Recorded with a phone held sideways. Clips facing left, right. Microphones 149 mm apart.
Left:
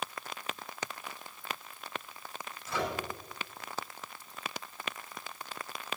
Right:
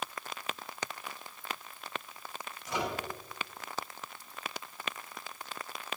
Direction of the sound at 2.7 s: 15° right (ahead or behind).